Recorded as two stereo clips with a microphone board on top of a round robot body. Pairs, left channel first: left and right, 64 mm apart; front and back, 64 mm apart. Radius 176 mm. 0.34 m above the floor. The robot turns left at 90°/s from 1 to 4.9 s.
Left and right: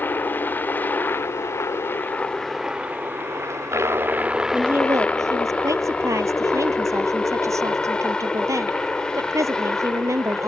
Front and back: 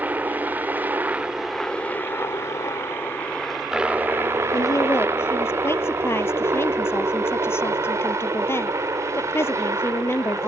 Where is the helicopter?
130° left; by 10.5 s 165° left.